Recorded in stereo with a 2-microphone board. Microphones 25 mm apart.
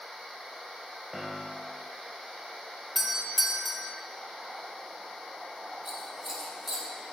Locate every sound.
1.1 s a piano: 5° right (ahead or behind), 0.9 m
3.0 s a doorbell: 10° right (ahead or behind), 0.7 m
5.8 s scissors: 15° right (ahead or behind), 1.9 m